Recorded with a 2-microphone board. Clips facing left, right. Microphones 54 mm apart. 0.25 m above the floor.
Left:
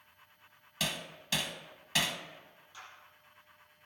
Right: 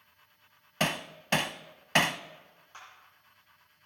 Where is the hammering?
50° right (ahead or behind), 0.5 m.